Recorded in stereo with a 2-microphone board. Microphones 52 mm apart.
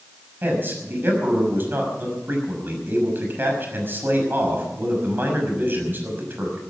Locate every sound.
0.4 s a man speaking: 40° right (ahead or behind), 6 m